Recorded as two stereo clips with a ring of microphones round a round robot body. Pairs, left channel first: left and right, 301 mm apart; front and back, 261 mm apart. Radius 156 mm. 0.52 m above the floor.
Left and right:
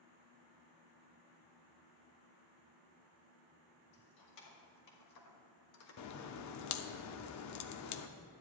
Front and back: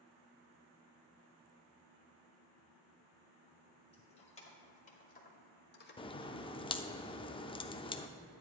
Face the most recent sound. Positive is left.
turn(degrees=70)